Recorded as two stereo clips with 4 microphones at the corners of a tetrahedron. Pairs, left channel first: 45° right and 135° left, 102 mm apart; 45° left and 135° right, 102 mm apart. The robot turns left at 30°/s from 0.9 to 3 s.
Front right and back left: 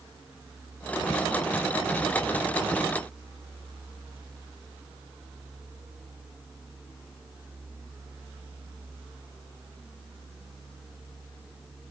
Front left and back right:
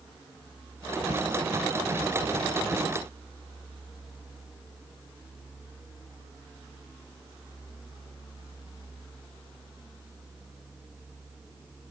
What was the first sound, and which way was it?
Only background noise.